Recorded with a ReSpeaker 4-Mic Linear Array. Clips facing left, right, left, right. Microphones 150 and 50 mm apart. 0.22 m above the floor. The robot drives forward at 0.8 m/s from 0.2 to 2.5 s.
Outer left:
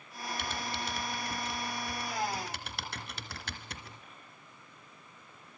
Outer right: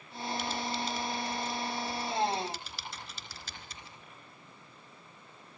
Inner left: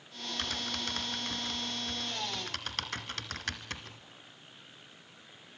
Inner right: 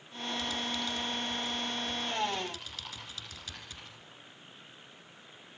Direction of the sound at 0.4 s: 60° left (ahead or behind).